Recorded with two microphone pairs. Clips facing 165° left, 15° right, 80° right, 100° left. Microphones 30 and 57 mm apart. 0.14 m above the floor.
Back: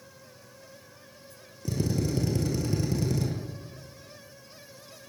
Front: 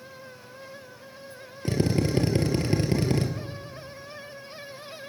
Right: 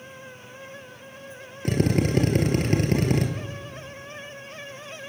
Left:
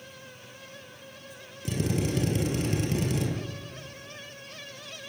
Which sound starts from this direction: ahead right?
A drill, at 1.6 s.